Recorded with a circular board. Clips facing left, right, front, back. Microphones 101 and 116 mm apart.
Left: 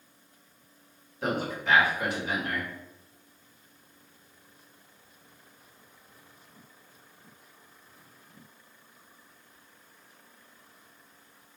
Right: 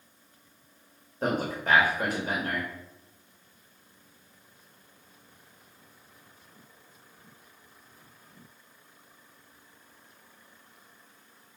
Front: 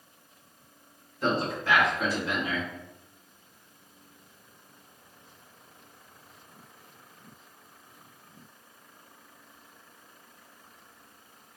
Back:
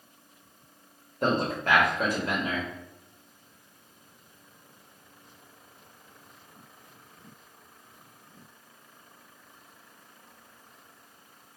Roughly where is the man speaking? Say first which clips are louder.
Right 1 dB, back 2 dB; behind right.